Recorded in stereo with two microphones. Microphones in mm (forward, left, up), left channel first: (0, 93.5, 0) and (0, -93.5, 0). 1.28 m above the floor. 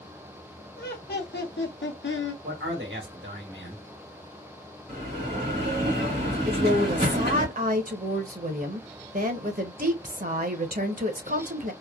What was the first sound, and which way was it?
Laughter, 55° left (ahead or behind).